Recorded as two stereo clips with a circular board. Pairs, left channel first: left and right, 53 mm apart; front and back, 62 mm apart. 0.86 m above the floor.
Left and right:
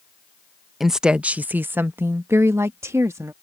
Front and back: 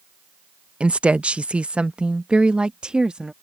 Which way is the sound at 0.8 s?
165° right.